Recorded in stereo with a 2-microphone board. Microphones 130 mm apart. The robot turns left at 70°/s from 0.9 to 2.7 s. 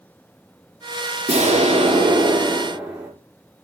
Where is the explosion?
75° right, 2.5 m; by 3.1 s 175° right, 2.5 m.